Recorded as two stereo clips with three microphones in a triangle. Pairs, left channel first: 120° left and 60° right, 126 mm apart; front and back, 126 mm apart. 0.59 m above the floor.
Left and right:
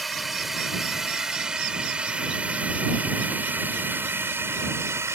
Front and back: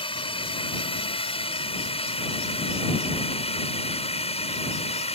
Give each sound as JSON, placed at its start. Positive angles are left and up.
{"t": 0.0, "sound": "a drone", "azimuth_deg": 30}